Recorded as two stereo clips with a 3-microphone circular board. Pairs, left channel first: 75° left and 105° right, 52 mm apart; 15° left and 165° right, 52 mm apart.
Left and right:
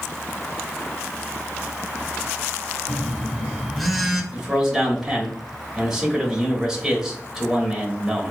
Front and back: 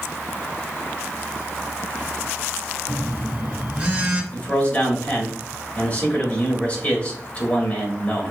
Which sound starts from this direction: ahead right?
A man speaking, at 4.3 s.